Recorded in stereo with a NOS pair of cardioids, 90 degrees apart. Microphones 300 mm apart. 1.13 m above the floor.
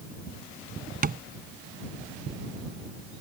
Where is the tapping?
30° right.